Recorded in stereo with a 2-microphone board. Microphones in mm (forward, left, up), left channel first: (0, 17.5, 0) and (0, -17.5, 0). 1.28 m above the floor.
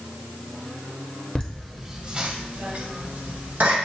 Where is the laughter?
20° left (ahead or behind), 0.8 m; by 3.8 s 65° right (ahead or behind), 2.5 m.